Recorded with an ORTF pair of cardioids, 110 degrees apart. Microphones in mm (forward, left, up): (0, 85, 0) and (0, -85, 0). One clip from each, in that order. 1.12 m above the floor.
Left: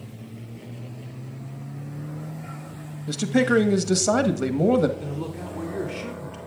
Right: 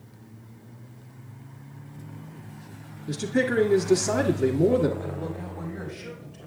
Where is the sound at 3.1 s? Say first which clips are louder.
Left 4 dB; 60° left, 1.2 m.